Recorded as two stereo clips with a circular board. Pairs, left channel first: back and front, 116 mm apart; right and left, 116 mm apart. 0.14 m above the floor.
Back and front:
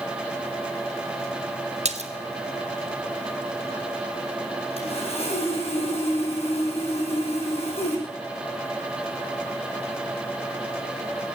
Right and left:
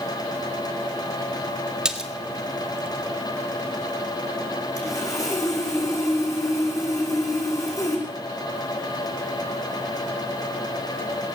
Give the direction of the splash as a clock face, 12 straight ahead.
12 o'clock.